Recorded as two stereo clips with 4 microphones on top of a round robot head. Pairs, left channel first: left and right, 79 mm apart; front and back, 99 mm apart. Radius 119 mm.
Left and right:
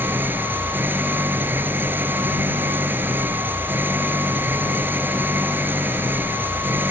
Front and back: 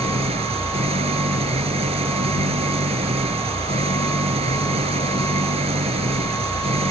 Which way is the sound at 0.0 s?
155° right.